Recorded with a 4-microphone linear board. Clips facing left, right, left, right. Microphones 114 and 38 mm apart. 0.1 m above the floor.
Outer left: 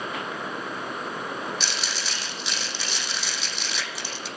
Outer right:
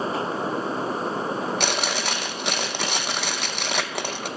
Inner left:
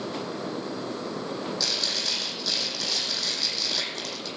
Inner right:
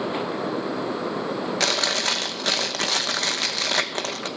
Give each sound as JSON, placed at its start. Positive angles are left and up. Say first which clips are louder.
{"t": 1.6, "sound": "chewing", "louder": "outer right 7 dB, inner right 9 dB", "side_deg": -60, "distance_m": 0.7}